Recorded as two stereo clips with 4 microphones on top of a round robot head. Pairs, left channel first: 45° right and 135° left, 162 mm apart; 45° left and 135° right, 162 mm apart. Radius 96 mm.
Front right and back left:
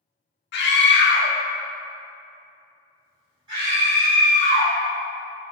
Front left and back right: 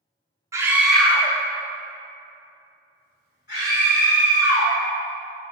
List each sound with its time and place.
0.5 s a scream: 65° right, 0.9 m; by 4.8 s 80° left, 3 m